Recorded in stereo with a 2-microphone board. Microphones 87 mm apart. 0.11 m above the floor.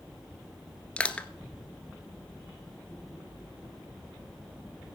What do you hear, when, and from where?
1.0 s crushing: 15° left (ahead or behind), 1.2 m